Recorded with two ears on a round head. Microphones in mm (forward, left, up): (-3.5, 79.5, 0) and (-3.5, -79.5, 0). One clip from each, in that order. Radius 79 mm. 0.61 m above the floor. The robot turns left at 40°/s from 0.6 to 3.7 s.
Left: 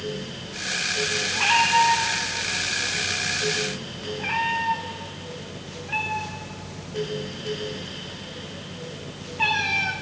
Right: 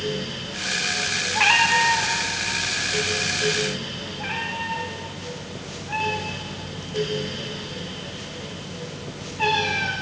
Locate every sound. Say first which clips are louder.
1.4 s a cat meowing: right 1 dB; 75° right (ahead or behind), 4.5 m; by 9.9 s 15° left (ahead or behind), 4.5 m